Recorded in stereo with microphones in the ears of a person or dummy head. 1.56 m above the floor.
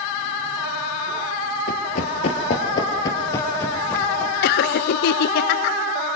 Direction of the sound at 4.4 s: 60° left (ahead or behind).